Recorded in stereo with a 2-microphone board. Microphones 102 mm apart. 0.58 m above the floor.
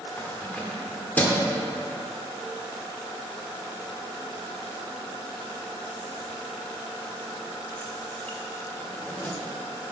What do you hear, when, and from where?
0.2 s keys jangling: 15° left (ahead or behind), 1.0 m